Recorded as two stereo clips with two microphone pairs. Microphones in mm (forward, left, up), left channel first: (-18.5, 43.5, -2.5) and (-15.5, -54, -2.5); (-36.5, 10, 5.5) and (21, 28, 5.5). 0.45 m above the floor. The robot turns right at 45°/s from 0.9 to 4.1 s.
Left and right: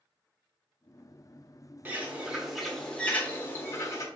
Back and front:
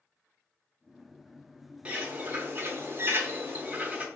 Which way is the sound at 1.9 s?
35° right.